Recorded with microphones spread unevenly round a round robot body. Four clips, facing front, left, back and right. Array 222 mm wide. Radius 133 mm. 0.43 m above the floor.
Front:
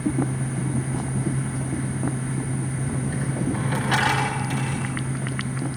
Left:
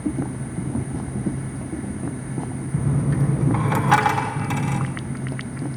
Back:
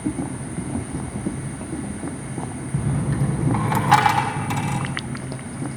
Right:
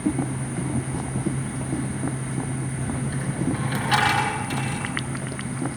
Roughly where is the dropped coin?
Behind left.